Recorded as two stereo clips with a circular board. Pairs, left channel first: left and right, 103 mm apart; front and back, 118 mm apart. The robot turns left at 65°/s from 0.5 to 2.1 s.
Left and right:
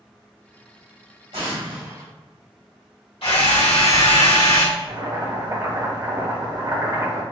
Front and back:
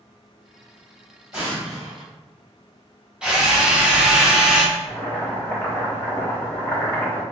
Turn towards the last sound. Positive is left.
turn(degrees=-65)